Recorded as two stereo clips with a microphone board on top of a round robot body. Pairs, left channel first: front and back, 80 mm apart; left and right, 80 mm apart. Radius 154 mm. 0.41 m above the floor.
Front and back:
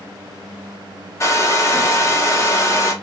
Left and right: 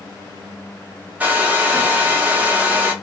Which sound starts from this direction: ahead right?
A hair dryer, at 1.2 s.